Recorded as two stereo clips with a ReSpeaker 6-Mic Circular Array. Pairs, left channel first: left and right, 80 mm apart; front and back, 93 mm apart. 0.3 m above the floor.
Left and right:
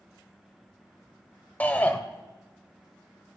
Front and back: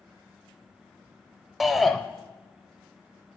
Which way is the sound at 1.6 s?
95° left.